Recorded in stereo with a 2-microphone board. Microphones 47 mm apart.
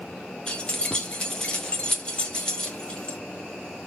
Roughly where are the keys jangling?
Left.